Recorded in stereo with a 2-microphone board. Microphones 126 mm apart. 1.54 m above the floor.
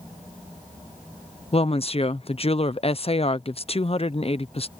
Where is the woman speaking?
50° left (ahead or behind).